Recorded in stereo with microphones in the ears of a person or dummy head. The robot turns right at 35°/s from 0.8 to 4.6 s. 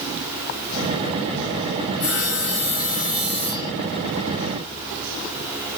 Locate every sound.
2.0 s sawing: 100° left, 2.5 m; by 3.7 s 160° left, 2.5 m